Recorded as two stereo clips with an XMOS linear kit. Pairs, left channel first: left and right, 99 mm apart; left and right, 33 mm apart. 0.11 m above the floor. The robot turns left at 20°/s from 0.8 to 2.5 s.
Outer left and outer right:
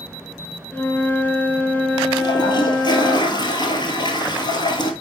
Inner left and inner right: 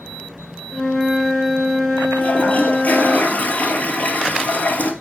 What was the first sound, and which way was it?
A flute, 15° left (ahead or behind).